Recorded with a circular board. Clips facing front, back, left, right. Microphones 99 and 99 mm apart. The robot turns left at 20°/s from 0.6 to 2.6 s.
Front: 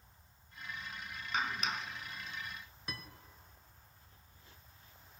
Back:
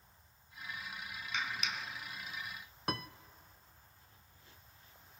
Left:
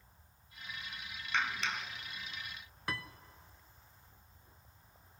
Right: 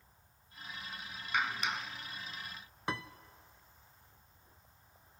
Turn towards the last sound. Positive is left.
turn(degrees=-155)